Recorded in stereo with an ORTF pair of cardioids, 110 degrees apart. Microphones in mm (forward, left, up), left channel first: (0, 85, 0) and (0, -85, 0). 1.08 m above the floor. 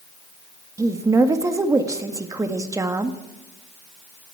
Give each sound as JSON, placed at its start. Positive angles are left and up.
{"t": 0.8, "sound": "a woman speaking", "azimuth_deg": -20, "distance_m": 1.4}